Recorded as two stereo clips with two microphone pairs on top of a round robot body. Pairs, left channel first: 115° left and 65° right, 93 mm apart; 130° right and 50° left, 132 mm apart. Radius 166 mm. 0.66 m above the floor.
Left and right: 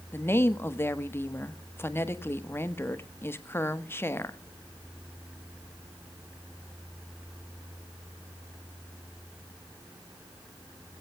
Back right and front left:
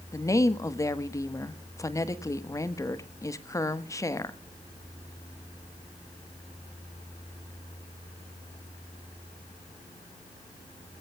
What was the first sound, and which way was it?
A woman speaking, 165° left.